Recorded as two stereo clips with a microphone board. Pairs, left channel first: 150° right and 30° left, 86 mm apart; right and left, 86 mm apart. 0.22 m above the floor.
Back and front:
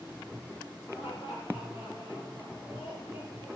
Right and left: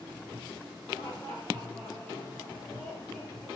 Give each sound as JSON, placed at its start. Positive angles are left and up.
{"t": 0.9, "sound": "laughter", "azimuth_deg": -155, "distance_m": 6.0}